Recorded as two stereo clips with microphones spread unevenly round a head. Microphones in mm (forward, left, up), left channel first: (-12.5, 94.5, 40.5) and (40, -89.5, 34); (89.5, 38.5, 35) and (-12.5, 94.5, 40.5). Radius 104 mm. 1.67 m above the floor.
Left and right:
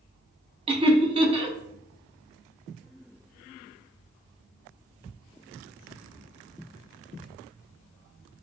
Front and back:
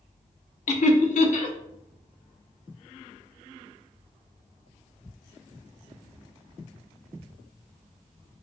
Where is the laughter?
10° right, 0.5 m.